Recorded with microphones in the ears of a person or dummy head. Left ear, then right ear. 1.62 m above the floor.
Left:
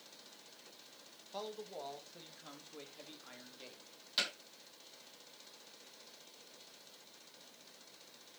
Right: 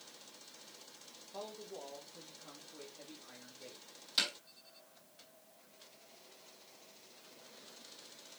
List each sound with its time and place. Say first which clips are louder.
1.3 s a man speaking: left 2 dB; 60° left (ahead or behind), 2.0 m
4.2 s hammering: right 2 dB; centre (ahead or behind), 4 m